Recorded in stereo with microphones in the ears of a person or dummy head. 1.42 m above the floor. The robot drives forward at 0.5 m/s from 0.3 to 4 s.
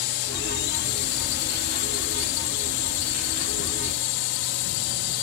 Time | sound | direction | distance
0.0 | a drone | 55° left (ahead or behind) | ?